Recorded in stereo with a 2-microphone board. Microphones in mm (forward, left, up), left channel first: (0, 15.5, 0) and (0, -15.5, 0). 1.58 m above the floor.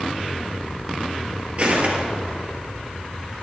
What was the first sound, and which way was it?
Footsteps, 45° right (ahead or behind).